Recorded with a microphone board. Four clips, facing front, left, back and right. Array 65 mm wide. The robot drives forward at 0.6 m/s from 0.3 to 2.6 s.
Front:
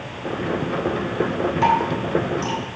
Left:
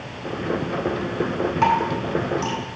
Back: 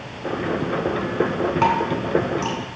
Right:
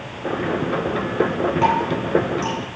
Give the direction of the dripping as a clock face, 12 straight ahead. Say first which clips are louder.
Left 1 dB, front 2 dB; 7 o'clock.